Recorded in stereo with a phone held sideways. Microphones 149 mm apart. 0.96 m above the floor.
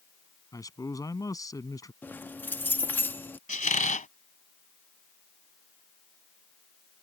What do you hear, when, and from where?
0.5 s a man speaking: 25° left (ahead or behind)
2.0 s keys jangling: 15° left (ahead or behind)
3.5 s a squeak: 65° left (ahead or behind)